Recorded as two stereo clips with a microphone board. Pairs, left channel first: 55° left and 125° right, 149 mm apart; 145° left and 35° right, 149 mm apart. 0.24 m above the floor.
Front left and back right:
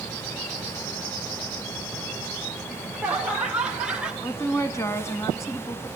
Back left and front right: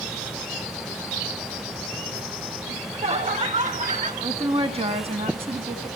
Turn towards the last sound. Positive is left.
turn(degrees=-10)